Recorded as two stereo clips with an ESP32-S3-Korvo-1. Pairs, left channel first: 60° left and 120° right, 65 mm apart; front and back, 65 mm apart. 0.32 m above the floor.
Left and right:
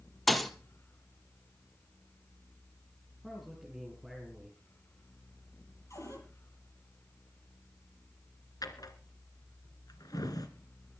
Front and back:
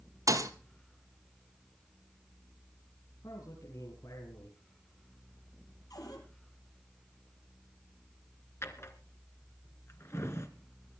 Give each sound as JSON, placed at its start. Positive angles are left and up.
{"t": 0.3, "sound": "a thud", "azimuth_deg": 145, "distance_m": 1.5}
{"t": 3.2, "sound": "a man speaking", "azimuth_deg": -35, "distance_m": 5.5}
{"t": 5.9, "sound": "a cupboard door", "azimuth_deg": 20, "distance_m": 7.0}
{"t": 8.6, "sound": "a drawer", "azimuth_deg": 45, "distance_m": 2.5}